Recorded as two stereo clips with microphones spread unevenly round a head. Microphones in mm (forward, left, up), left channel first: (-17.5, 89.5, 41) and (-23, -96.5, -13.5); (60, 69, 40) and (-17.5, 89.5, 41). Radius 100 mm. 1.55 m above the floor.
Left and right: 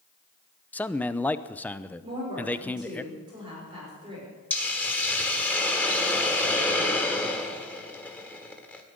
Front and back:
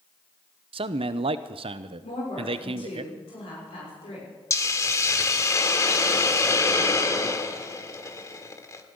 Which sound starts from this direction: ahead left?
A hiss, at 4.5 s.